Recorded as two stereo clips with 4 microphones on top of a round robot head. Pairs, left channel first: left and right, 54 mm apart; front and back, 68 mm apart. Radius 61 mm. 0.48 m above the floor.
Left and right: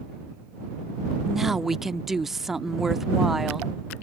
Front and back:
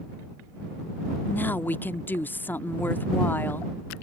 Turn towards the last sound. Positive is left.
turn(degrees=-10)